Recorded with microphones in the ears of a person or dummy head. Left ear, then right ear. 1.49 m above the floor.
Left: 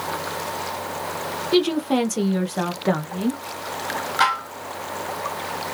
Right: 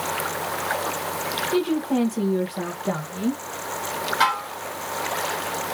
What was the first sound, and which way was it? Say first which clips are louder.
A woman speaking: left 6 dB; 85° left.